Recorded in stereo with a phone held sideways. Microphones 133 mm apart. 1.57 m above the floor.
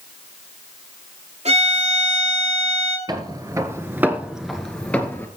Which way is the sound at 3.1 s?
30° right (ahead or behind).